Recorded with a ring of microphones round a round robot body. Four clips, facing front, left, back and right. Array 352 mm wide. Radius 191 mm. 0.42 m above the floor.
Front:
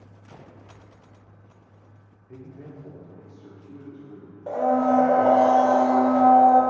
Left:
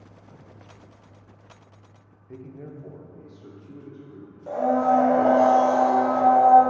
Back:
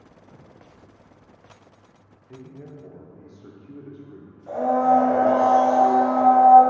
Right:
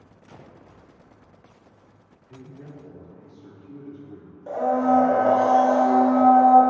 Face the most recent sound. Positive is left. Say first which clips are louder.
# even, back 2 dB
turn(degrees=-5)